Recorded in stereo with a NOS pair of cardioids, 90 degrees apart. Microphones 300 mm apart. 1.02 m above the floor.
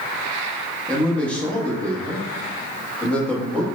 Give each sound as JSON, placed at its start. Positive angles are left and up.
{"t": 0.9, "sound": "a man speaking", "azimuth_deg": 5, "distance_m": 0.9}